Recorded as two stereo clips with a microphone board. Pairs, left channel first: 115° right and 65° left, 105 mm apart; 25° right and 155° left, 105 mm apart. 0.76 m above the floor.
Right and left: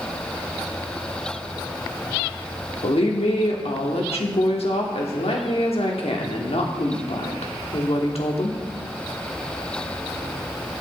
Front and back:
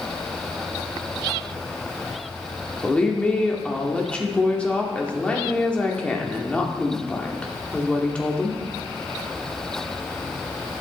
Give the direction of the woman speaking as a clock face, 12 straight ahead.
3 o'clock.